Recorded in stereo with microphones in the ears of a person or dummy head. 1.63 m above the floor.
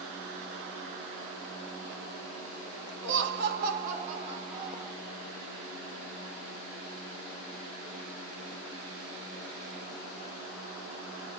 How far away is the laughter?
About 2 m.